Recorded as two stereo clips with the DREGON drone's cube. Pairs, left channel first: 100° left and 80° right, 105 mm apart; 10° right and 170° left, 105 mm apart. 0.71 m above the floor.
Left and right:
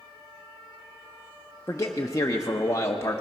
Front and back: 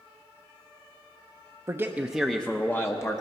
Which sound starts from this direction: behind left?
A man speaking, at 1.7 s.